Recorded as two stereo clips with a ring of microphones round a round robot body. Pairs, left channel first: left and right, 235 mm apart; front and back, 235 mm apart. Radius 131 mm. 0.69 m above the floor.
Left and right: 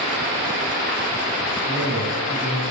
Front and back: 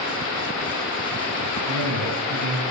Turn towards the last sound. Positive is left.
turn(degrees=-175)